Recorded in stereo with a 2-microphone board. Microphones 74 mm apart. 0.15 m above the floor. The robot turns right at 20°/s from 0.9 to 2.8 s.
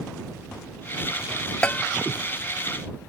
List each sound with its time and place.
1.6 s a bell: 20° left (ahead or behind); by 1.9 s 25° left (ahead or behind)